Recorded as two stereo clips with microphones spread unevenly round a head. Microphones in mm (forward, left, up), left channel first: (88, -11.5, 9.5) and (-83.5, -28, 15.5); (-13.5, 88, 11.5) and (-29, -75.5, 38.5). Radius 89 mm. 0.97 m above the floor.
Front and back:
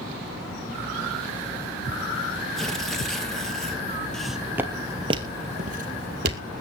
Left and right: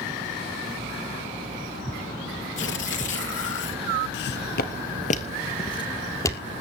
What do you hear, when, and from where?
2.6 s tearing paper: 95° left, 3 m
4.1 s footsteps: 90° left, 1.6 m; by 6.4 s 160° left, 2 m